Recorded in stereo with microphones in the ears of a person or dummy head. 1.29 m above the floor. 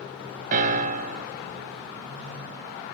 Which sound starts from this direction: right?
A piano, at 0.5 s.